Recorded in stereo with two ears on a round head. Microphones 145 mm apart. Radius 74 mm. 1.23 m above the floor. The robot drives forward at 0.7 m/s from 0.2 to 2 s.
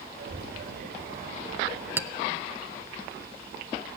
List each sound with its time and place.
0.1 s a child speaking: 75° right (ahead or behind), 7 m; by 1.9 s 65° right (ahead or behind), 7 m
2.0 s a clink: 15° right (ahead or behind), 0.8 m